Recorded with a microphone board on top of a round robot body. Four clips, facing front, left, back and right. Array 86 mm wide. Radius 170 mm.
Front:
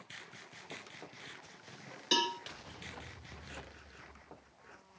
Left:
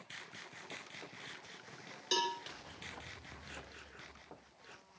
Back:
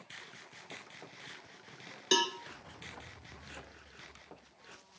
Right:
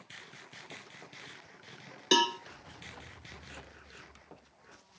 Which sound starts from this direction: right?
A cowbell, at 2.1 s.